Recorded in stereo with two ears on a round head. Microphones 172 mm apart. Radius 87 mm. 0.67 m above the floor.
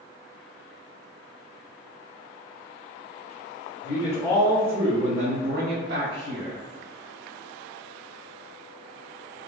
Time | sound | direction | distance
3.8 | a man speaking | 25° left (ahead or behind) | 0.8 m